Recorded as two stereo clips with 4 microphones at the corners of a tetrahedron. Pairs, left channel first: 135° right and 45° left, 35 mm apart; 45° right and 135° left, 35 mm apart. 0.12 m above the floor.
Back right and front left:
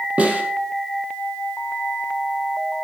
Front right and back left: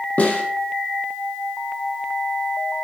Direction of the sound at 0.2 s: Straight ahead.